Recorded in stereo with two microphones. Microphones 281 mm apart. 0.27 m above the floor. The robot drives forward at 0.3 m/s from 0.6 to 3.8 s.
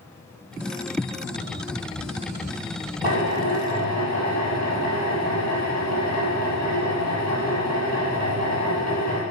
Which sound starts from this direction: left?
A drill, at 3.0 s.